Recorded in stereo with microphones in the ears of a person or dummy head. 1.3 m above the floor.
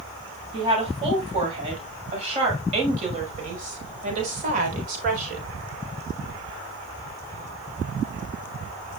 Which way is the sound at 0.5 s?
35° right (ahead or behind).